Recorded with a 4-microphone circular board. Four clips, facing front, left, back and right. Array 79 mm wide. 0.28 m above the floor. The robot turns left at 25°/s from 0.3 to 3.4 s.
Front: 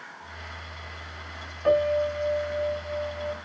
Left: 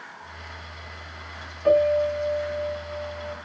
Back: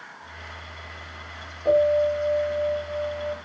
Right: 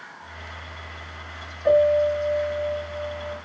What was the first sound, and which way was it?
A piano, 15° left.